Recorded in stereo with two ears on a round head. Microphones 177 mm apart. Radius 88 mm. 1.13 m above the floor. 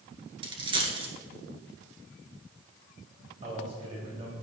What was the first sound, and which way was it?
A dropped coin, 25° right (ahead or behind).